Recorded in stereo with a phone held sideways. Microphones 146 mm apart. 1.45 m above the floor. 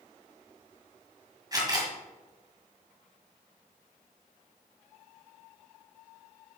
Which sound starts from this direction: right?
A camera shutter, at 1.5 s.